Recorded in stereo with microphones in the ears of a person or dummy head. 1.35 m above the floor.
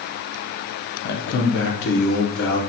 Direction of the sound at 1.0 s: 60° left (ahead or behind).